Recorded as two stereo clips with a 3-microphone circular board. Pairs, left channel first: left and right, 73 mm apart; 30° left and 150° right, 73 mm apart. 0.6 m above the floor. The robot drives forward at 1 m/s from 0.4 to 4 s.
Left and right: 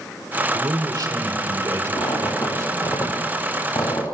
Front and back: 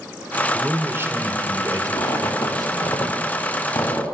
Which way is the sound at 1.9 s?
55° left.